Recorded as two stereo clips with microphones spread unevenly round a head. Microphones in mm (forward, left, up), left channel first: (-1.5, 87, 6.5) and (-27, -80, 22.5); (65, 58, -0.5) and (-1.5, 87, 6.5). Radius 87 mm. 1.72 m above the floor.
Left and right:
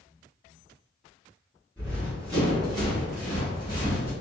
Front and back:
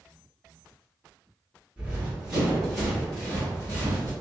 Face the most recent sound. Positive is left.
turn(degrees=-40)